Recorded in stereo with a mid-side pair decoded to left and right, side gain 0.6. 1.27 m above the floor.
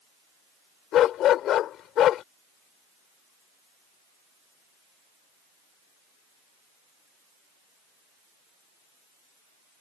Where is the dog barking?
60° left.